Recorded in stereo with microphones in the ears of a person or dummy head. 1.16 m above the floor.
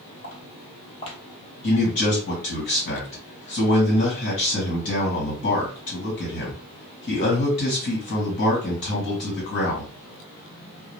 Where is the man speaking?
40° left (ahead or behind), 1.6 m.